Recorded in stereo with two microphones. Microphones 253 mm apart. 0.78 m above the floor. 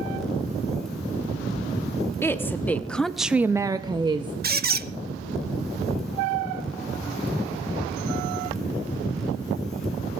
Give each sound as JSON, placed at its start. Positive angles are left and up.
{"t": 2.2, "sound": "a woman speaking", "side_deg": 10, "distance_m": 1.3}
{"t": 4.4, "sound": "a squeak", "side_deg": -40, "distance_m": 0.6}